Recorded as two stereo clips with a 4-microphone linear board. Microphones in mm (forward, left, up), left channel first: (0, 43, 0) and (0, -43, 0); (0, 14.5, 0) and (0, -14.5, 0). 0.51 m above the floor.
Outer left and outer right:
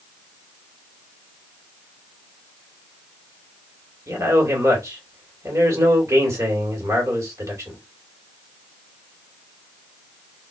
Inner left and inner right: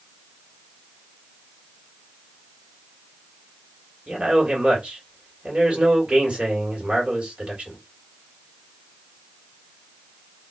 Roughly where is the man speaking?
Right.